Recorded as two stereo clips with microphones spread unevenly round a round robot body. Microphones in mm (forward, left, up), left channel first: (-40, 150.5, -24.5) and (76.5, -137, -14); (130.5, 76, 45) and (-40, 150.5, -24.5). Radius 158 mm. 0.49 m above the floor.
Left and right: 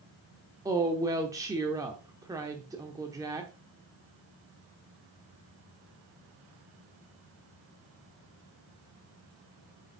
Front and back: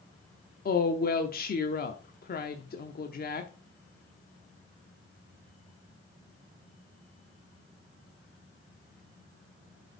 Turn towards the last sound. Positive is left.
turn(degrees=5)